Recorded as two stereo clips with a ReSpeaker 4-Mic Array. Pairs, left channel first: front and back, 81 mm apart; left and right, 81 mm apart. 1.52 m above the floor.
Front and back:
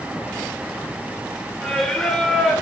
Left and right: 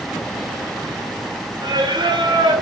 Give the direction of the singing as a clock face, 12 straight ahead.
3 o'clock.